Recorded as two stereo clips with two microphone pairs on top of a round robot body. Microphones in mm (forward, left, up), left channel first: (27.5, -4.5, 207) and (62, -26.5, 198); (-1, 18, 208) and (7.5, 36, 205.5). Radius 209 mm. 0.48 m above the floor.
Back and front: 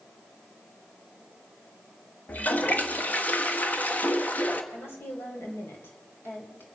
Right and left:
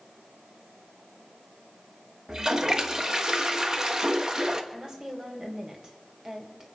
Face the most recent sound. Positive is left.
turn(degrees=115)